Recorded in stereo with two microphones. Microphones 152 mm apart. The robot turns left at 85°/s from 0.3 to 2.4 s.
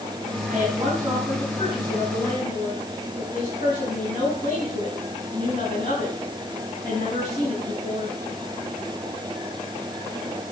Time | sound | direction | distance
0.5 | a woman speaking | 105° right | 6.5 m